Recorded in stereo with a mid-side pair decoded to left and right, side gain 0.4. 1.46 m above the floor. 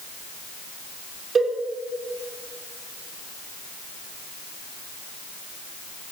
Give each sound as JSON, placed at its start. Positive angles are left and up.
{"t": 1.4, "sound": "a cowbell", "azimuth_deg": -50, "distance_m": 4.5}